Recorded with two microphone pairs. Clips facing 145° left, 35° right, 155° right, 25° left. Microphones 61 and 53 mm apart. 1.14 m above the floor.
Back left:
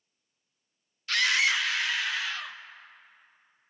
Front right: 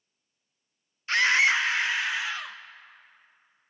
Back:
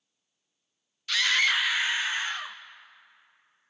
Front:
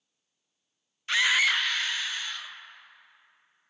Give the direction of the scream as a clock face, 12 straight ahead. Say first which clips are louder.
Front right 4 dB, front 1 dB; 12 o'clock.